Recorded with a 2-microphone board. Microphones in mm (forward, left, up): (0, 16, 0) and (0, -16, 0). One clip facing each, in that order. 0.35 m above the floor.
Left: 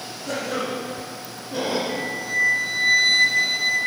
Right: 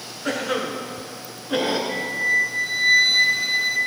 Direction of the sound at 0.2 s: 60° right (ahead or behind).